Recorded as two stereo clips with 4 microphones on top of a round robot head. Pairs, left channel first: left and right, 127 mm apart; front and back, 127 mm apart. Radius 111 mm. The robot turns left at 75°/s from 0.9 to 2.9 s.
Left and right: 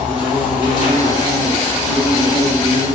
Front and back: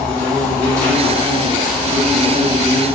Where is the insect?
75° left, 2.0 m; by 3.0 s 75° right, 2.0 m.